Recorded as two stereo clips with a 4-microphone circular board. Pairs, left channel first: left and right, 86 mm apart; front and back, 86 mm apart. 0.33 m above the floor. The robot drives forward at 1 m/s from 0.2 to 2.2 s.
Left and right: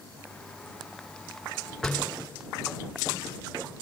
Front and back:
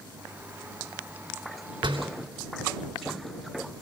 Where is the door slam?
170° left, 3 m.